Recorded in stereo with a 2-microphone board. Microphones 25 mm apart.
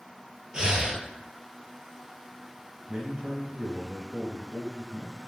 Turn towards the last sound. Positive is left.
turn(degrees=-30)  # may be behind; listen again after turning